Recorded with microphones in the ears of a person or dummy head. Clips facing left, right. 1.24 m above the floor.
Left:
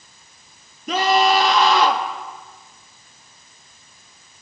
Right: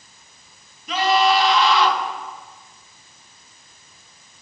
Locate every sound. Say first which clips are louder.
0.9 s a scream: left 1 dB; 45° left (ahead or behind), 3 m